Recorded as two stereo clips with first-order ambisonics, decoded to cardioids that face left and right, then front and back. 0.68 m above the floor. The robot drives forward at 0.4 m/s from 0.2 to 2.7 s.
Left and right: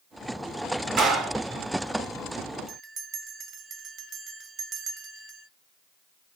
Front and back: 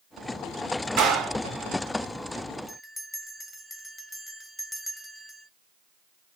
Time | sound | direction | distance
1.0 | a clap | 140° right | 1.3 m
2.7 | a bell | 95° right | 0.7 m